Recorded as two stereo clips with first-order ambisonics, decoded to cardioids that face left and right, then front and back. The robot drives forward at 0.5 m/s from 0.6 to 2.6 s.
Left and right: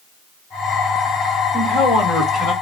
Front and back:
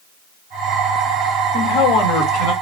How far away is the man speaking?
About 3 m.